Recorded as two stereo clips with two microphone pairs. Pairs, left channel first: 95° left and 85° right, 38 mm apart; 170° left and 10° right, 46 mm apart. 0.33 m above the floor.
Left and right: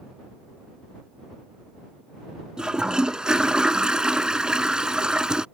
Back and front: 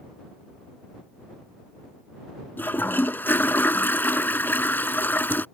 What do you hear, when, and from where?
2.6 s a toilet flushing: 150° right